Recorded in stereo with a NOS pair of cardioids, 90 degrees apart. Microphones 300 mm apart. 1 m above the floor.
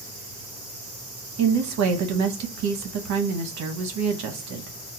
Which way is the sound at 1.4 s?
70° right.